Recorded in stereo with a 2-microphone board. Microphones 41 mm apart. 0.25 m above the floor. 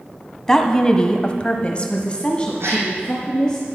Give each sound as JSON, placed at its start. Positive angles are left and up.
{"t": 0.5, "sound": "a woman speaking", "side_deg": 15, "distance_m": 1.3}
{"t": 2.6, "sound": "a gasp", "side_deg": -90, "distance_m": 2.0}